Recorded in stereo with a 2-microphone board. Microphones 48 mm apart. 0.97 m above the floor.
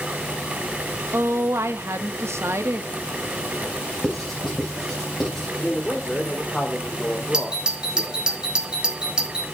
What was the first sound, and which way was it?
A woman speaking, 70° right (ahead or behind).